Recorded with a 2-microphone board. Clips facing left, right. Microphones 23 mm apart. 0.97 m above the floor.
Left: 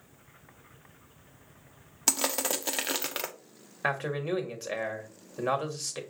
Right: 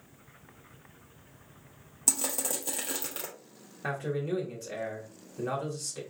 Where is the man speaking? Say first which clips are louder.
Left 2 dB; 45° left (ahead or behind), 1.0 m.